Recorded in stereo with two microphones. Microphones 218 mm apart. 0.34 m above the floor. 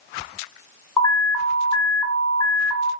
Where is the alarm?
15° left (ahead or behind), 1.7 m.